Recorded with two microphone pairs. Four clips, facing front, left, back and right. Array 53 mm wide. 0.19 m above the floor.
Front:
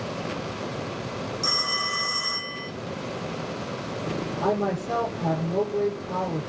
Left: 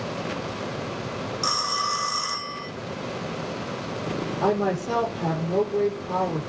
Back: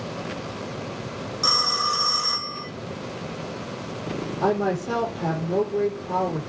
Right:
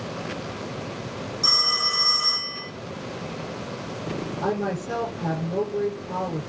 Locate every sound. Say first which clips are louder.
1.4 s a phone ringing: left 2 dB, back 6 dB; 155° left, 6 m
4.4 s a woman speaking: left 4 dB, back 3 dB; 130° left, 8.5 m